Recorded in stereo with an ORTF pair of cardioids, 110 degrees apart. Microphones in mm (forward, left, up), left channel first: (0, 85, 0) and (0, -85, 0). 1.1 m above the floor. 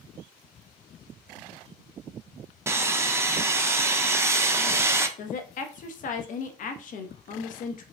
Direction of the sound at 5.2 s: 50° left.